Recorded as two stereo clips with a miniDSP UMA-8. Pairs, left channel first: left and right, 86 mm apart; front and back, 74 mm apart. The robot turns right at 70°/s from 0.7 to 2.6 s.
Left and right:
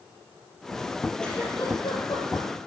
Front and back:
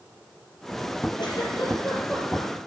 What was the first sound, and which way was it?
A giggle, 5° left.